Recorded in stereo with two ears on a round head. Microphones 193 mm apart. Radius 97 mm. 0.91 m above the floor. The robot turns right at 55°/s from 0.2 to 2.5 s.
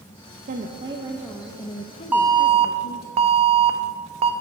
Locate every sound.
0.5 s a woman speaking: 50° right, 0.6 m; by 3.1 s 65° left, 0.6 m
2.1 s an alarm: 5° right (ahead or behind), 0.7 m; by 4.3 s 25° right (ahead or behind), 0.7 m